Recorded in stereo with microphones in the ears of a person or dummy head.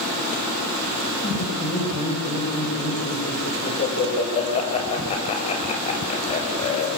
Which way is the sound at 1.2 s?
30° left (ahead or behind).